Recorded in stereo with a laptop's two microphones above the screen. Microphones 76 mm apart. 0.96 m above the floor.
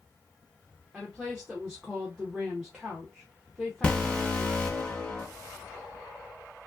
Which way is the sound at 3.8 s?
15° left (ahead or behind).